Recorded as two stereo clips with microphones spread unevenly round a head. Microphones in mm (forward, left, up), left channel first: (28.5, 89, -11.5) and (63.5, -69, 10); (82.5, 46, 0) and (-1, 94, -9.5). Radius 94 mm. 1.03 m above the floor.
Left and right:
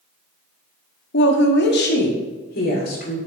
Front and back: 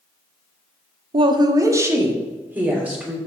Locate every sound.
1.1 s a woman speaking: 125° left, 1.0 m; by 3.2 s 75° left, 4 m